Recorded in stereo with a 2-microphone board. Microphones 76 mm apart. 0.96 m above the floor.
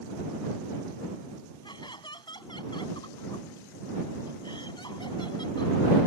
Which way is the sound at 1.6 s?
85° left.